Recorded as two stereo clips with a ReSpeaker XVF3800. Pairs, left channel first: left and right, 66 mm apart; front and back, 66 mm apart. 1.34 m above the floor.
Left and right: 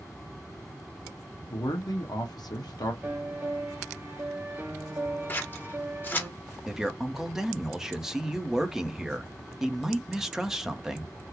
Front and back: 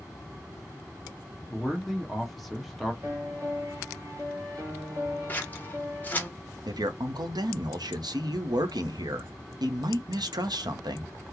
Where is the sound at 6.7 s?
175° right, 0.7 m.